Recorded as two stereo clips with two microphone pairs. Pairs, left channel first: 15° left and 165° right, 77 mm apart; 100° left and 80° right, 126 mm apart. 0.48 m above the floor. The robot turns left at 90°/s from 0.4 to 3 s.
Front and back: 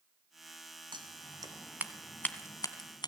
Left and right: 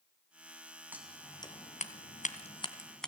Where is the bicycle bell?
No bicycle bell in this recording.